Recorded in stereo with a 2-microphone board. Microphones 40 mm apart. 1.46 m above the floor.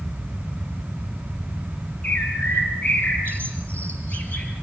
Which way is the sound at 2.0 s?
35° left (ahead or behind).